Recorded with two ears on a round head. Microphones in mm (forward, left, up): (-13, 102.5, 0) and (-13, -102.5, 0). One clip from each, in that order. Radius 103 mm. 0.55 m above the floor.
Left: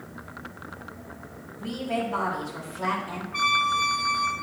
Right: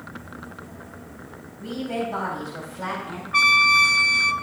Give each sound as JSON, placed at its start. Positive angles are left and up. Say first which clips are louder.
{"t": 1.6, "sound": "a woman speaking", "louder": "right 1 dB", "side_deg": -15, "distance_m": 4.0}
{"t": 3.3, "sound": "a trumpet", "louder": "right 7 dB", "side_deg": -55, "distance_m": 0.7}